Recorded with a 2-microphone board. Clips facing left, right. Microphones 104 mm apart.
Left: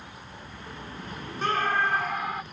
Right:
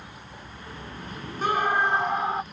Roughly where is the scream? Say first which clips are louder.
Right 2 dB; centre.